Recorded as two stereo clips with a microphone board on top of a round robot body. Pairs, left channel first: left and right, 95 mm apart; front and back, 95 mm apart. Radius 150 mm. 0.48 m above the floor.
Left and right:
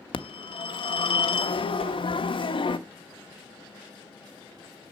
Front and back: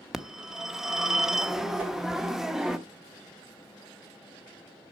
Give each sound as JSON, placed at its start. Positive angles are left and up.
{"t": 0.1, "sound": "a phone ringing", "azimuth_deg": 95, "distance_m": 1.1}
{"t": 1.8, "sound": "a whoosh", "azimuth_deg": 110, "distance_m": 3.0}